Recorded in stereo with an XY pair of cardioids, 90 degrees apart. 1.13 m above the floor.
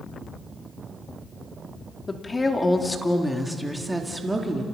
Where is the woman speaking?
30° left, 3 m; by 4.6 s 35° right, 3 m.